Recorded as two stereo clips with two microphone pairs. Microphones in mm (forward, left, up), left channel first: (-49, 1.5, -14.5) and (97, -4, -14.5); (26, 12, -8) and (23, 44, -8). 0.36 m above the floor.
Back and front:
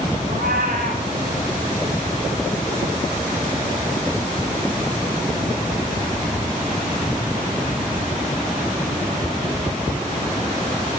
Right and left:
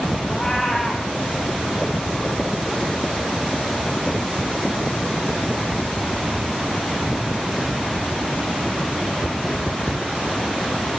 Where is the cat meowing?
10° right, 5 m.